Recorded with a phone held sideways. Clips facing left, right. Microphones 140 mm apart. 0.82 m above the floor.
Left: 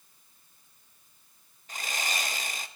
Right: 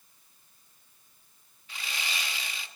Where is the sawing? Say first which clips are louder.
Left 4 dB; 45° left (ahead or behind), 0.9 m.